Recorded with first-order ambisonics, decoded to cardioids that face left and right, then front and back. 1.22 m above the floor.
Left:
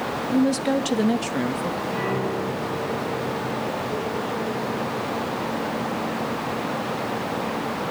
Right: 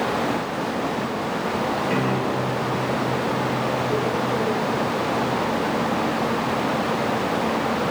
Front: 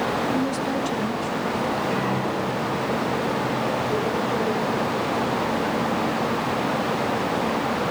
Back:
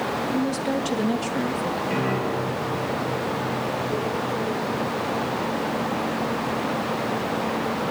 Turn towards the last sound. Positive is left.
turn(degrees=-105)